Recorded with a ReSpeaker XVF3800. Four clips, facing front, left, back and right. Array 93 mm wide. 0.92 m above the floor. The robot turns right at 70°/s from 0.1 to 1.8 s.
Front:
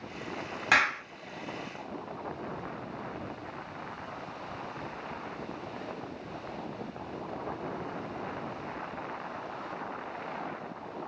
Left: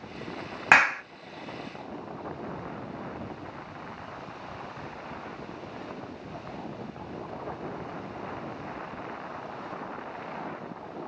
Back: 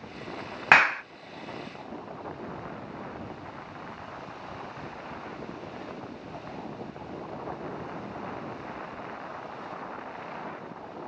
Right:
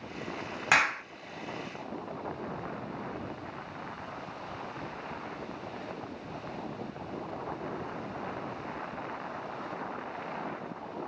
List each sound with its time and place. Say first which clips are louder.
0.7 s a clap: left 6 dB, back 6 dB; 140° left, 0.8 m; by 1.0 s 165° left, 0.8 m